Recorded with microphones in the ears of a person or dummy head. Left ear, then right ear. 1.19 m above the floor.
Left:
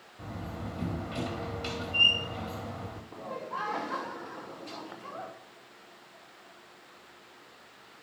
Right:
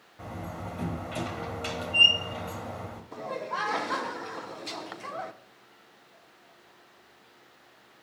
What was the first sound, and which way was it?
A door slam, 20° right (ahead or behind).